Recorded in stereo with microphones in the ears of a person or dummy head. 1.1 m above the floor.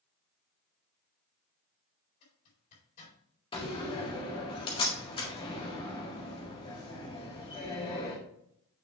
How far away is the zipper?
About 4 m.